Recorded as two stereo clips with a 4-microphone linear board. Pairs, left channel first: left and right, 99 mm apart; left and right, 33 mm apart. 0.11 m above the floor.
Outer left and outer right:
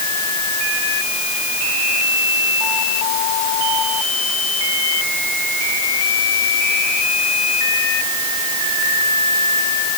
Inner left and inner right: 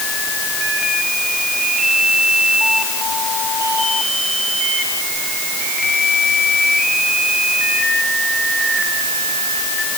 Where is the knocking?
I don't hear knocking.